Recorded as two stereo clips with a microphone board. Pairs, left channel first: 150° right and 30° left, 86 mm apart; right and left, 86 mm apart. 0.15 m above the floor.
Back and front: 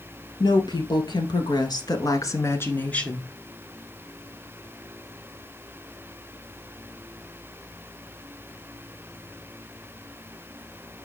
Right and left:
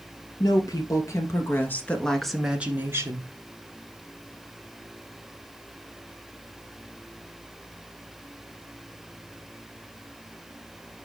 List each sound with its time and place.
0.4 s a woman speaking: 125° right, 3 m; by 3.3 s 130° left, 2.0 m